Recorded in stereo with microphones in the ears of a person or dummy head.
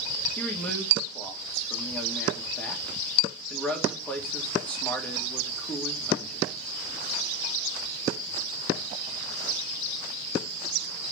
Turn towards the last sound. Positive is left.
turn(degrees=10)  # may be behind; listen again after turning